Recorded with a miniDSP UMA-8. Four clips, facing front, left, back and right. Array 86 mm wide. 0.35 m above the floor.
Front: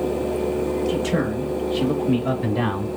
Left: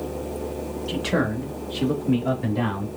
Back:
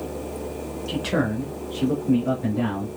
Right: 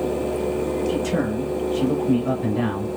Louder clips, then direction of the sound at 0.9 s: Right 2 dB, front 2 dB; 130° left.